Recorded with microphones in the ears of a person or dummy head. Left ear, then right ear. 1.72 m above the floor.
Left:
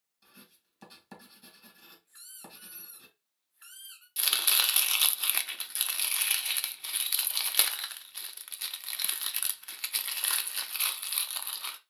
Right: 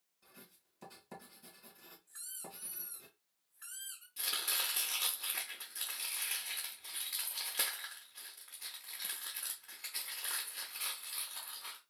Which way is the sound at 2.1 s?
5° left (ahead or behind).